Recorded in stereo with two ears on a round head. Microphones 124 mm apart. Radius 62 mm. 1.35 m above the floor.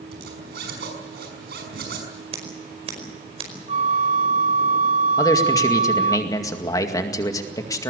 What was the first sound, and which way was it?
A zipper, 80° right.